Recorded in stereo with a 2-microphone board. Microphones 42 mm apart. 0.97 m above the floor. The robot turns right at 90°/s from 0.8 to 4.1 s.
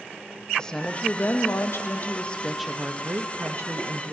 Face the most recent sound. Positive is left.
turn(degrees=-45)